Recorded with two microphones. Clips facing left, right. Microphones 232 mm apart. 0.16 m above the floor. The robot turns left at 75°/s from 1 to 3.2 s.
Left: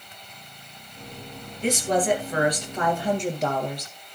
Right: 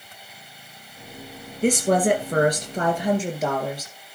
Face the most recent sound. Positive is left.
turn(degrees=-175)